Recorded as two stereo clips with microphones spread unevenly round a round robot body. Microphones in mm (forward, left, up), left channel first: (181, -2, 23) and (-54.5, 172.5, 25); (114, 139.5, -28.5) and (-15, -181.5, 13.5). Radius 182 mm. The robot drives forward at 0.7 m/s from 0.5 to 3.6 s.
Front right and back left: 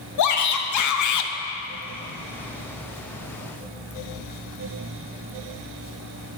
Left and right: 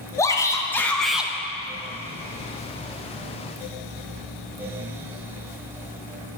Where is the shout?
10° right, 1.2 m; by 1.3 s 25° right, 0.7 m.